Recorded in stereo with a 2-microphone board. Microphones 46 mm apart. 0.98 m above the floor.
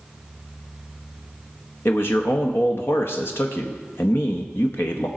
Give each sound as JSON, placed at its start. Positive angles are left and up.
{"t": 1.9, "sound": "a man speaking", "side_deg": 60, "distance_m": 0.8}